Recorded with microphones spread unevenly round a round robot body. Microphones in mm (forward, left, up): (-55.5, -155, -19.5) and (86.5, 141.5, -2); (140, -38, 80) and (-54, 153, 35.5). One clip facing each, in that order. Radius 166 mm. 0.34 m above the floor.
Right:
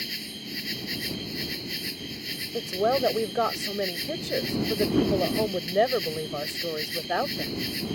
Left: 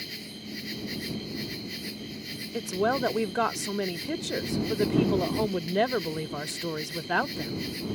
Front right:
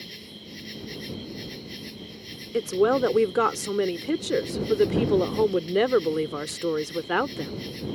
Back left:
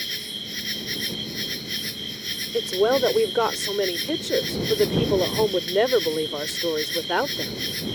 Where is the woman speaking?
30° left.